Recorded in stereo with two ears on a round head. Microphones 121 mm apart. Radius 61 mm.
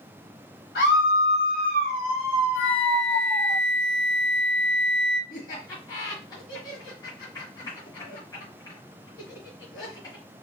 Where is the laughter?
30° left (ahead or behind), 1.7 m.